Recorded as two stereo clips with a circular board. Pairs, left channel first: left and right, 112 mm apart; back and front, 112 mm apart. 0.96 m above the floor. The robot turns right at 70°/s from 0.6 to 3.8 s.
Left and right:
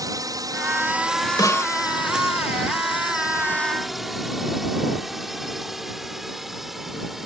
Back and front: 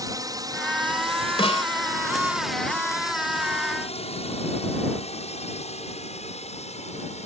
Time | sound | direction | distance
0.0 | a drone | 45° right | ?
1.4 | a snare drum | 145° left | ?